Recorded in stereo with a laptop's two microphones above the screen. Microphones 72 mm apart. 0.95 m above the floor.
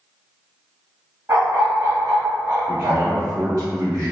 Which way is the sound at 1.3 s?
40° right (ahead or behind).